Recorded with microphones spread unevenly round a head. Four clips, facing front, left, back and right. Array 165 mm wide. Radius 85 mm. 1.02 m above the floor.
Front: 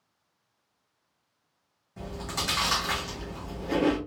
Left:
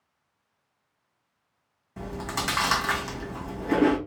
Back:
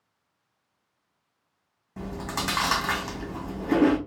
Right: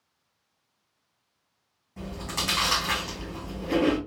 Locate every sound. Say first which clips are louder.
2.0 s chewing: left 3 dB, back 3 dB; 160° left, 1.4 m